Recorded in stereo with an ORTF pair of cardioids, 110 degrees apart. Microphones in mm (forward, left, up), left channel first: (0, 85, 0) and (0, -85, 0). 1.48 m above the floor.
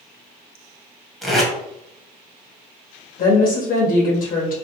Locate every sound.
1.2 s tape being pulled: straight ahead, 1.3 m
3.2 s a woman speaking: 55° left, 1.4 m